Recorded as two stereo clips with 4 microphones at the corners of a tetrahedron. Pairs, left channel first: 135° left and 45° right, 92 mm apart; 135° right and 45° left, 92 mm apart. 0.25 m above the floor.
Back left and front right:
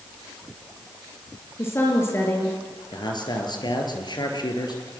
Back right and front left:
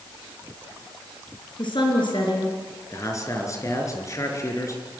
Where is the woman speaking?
165° right, 4.5 m.